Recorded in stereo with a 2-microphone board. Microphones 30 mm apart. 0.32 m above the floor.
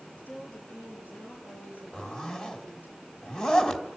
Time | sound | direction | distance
0.2 | a woman speaking | 80° left | 8.5 m
1.9 | a zipper | 25° left (ahead or behind) | 2.5 m